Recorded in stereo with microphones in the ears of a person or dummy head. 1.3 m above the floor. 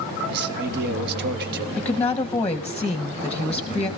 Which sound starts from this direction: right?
A man speaking, at 0.3 s.